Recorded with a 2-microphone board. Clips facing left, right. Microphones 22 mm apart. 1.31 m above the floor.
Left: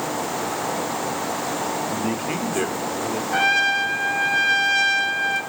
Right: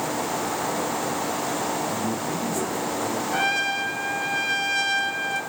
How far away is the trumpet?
About 1.7 m.